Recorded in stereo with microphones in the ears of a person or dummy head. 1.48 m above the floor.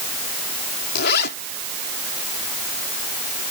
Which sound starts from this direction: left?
A zipper, at 0.9 s.